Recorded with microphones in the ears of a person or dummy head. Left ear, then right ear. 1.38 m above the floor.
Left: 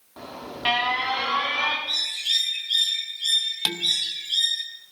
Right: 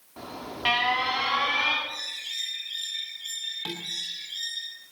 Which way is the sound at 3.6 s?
70° left (ahead or behind).